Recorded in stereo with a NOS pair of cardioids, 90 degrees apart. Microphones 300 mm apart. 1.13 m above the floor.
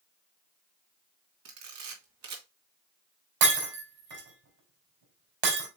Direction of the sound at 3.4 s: 55° right.